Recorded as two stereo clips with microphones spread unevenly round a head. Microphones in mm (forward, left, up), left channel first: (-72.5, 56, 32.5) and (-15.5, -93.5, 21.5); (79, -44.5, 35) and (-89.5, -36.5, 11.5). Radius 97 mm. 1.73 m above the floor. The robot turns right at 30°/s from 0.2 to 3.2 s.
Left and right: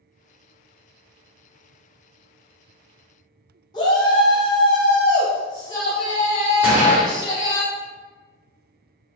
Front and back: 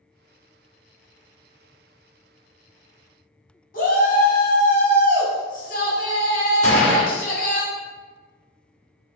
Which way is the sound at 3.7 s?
45° left.